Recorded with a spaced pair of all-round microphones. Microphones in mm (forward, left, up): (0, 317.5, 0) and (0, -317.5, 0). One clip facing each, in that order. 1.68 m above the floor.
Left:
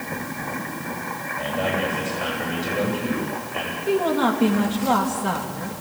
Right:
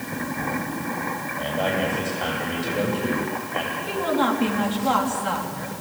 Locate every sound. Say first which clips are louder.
1.4 s a man speaking: even; 35° left (ahead or behind), 9 m
3.9 s a woman speaking: left 4 dB; 60° left (ahead or behind), 2.5 m